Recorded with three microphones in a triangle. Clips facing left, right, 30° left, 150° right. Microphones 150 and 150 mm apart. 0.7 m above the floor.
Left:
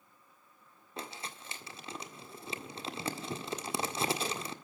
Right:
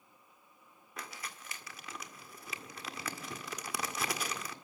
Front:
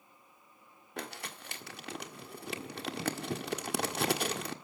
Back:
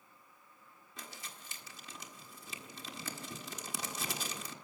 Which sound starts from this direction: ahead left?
Crumpling, at 1.0 s.